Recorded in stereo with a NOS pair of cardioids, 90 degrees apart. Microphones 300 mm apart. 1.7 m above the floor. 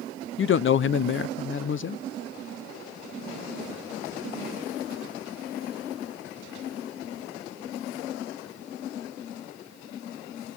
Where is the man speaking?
45° left, 0.9 m.